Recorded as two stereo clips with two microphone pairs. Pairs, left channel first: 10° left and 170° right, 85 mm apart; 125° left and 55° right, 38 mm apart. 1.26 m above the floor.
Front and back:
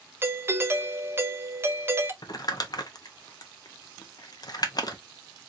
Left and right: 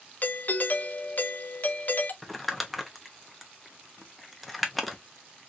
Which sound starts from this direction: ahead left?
Crumpling, at 2.2 s.